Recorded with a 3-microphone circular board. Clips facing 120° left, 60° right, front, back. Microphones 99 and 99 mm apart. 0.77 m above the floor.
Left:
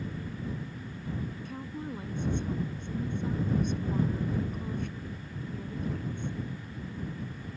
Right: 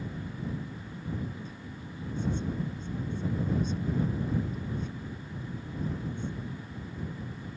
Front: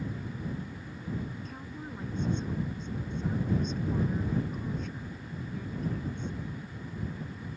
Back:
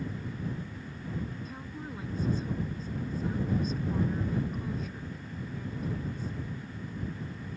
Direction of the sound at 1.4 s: 95° left.